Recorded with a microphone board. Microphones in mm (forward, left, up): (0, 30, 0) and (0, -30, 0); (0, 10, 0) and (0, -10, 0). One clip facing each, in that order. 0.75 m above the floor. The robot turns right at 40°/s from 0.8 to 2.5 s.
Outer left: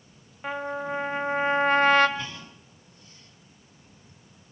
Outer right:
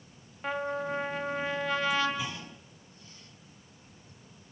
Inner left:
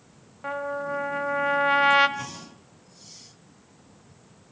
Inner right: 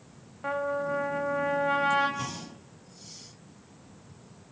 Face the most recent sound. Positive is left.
turn(degrees=-20)  # may be behind; listen again after turning